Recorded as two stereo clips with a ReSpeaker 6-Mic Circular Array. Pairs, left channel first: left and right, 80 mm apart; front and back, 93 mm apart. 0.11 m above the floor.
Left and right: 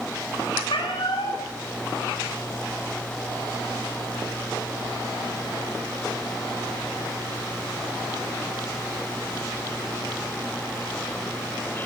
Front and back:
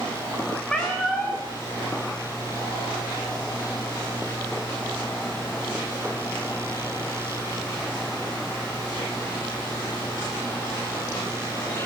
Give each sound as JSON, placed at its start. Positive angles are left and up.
{"t": 0.7, "sound": "a cat meowing", "azimuth_deg": 85, "distance_m": 6.5}